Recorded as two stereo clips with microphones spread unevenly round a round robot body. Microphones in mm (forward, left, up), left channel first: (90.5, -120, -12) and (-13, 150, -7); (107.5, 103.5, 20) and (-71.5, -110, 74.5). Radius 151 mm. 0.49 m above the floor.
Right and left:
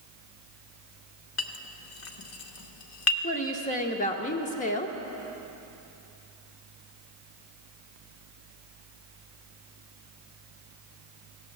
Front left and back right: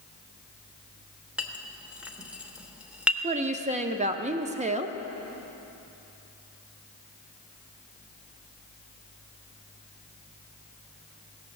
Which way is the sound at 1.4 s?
40° right.